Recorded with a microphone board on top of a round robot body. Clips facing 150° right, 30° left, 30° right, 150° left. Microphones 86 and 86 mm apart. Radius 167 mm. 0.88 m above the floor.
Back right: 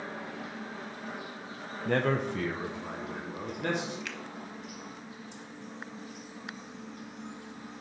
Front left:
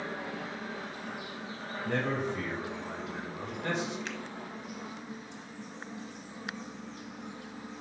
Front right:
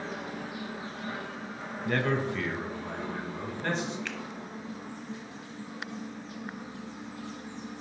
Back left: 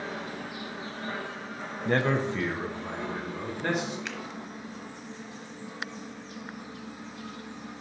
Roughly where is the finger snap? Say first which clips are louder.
Front left 2 dB, back left 1 dB; left.